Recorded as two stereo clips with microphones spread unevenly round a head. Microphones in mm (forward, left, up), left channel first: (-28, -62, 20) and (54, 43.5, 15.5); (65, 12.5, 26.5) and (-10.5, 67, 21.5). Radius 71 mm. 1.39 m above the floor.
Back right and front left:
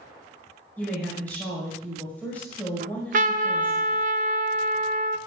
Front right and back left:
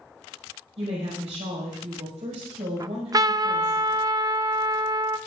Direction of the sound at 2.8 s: 90° left.